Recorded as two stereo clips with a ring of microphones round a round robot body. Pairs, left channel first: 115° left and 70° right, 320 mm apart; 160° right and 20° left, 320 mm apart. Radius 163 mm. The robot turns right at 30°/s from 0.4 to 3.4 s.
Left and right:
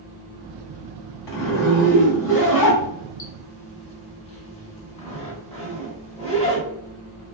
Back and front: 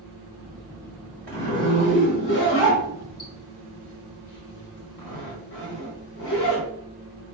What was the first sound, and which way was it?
A zipper, 120° left.